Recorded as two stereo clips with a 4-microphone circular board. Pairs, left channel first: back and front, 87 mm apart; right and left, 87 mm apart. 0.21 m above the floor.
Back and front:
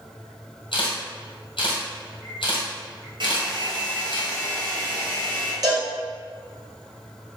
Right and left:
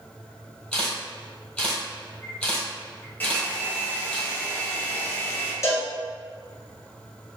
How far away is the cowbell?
About 1.6 m.